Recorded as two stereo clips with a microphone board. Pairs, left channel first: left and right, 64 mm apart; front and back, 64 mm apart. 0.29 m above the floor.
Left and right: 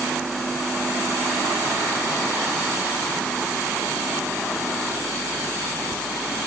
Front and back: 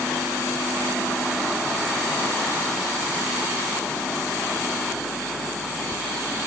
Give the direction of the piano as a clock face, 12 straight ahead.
No piano in this recording.